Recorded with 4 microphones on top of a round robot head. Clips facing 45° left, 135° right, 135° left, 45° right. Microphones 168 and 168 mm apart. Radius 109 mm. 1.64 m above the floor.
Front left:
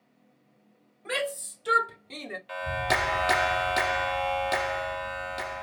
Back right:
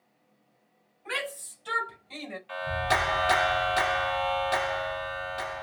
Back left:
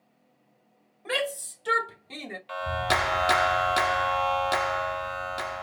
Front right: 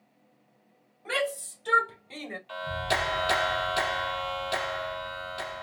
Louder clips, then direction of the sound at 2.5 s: Back right 1 dB, back left 3 dB; 100° left.